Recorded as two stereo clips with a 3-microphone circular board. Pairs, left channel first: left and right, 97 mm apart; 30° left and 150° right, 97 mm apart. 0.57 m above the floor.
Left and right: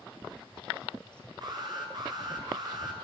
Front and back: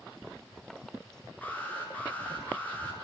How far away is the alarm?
About 5.5 m.